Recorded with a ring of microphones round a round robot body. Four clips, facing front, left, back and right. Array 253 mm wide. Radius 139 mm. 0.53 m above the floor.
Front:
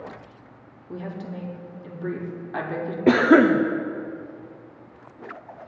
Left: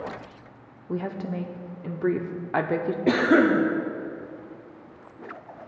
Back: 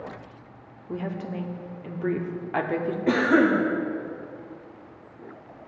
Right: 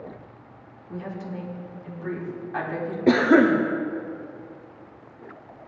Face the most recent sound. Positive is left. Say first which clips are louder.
# right 3 dB, front 5 dB
turn(degrees=-15)